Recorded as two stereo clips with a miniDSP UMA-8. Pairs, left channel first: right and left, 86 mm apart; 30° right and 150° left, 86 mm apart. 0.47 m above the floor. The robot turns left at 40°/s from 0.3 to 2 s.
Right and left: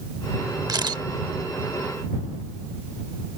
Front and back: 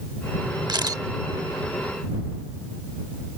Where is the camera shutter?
125° left; by 1.0 s 110° left.